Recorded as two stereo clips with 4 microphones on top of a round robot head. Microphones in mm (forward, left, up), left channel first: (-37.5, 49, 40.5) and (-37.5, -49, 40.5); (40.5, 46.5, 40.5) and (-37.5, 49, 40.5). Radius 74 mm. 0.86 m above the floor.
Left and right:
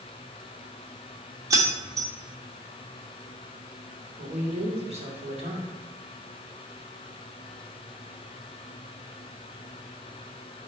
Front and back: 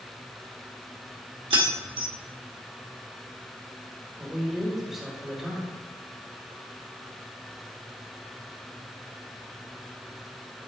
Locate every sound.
1.5 s keys jangling: 145° right, 1.5 m
4.2 s a man speaking: 95° right, 3 m